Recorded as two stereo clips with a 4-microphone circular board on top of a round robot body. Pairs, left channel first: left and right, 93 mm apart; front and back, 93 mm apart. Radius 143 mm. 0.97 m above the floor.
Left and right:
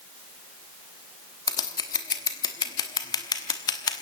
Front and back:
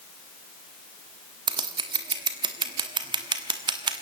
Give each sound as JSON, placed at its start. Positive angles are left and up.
{"t": 1.5, "sound": "scissors", "azimuth_deg": 140, "distance_m": 1.1}